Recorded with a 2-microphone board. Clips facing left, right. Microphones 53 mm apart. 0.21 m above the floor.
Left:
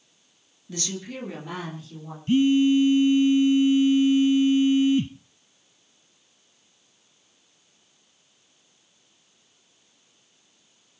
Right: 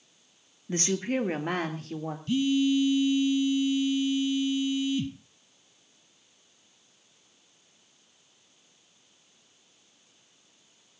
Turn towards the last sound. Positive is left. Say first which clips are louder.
# left 6 dB
turn(degrees=35)  # may be behind; listen again after turning